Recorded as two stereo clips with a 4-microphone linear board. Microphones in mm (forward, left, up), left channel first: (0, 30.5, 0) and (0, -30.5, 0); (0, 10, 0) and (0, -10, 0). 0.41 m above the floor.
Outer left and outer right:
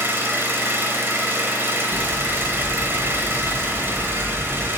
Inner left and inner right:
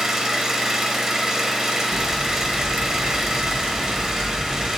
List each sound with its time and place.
0.0 s an engine running: 40° right (ahead or behind), 1.2 m
1.9 s hammering: 45° right (ahead or behind), 1.7 m